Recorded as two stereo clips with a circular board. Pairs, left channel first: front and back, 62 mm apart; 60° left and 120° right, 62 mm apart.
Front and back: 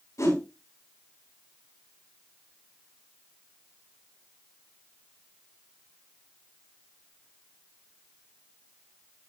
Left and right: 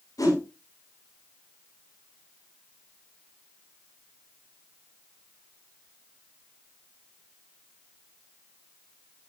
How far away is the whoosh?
About 5.5 m.